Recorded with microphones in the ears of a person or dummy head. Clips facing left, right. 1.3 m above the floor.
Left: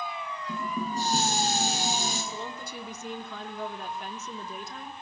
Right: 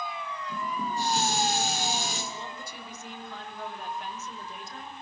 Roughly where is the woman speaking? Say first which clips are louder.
Left 3 dB; left.